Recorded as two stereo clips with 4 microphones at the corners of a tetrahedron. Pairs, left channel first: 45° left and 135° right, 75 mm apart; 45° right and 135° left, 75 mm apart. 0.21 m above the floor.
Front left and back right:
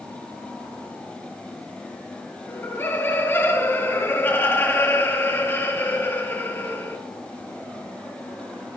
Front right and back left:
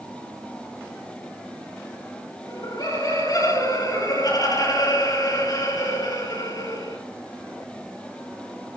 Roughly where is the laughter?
Ahead.